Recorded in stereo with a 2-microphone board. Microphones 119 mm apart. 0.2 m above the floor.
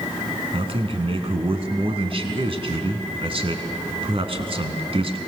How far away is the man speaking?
About 1.9 m.